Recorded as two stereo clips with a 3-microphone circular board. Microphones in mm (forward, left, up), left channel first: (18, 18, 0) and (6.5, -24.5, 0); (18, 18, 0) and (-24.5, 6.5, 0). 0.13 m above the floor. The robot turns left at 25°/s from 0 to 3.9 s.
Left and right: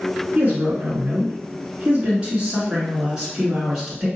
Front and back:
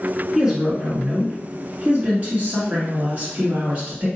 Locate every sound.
0.3 s a woman speaking: 100° right, 1.8 m; by 4.1 s 170° left, 1.8 m